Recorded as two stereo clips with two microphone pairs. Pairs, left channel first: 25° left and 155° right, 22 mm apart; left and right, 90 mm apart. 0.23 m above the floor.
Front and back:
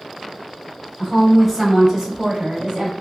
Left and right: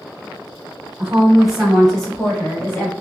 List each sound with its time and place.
1.0 s a woman speaking: 25° right, 1.2 m; by 2.9 s 165° left, 1.8 m